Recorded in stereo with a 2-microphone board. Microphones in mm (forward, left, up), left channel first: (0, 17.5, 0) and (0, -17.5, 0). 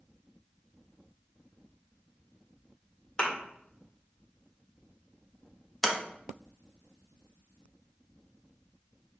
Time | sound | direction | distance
3.2 | a thud | 25° left (ahead or behind) | 1.5 m
5.8 | a sliding door | centre (ahead or behind) | 0.7 m